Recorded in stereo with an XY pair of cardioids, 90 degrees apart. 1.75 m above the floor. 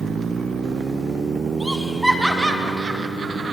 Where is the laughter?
Straight ahead, 1.8 m; by 3.5 s 55° right, 1.4 m.